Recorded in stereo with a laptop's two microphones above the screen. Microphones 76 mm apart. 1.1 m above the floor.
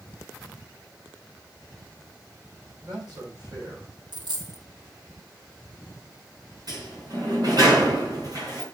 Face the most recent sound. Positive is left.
turn(degrees=-55)  # may be behind; listen again after turning